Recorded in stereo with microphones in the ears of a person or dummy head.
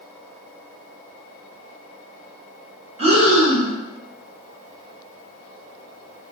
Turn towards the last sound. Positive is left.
turn(degrees=-35)  # may be behind; listen again after turning